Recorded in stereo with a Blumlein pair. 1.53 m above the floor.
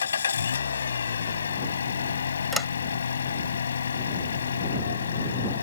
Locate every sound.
0.0 s an engine running: 70° left
2.5 s a sliding door: straight ahead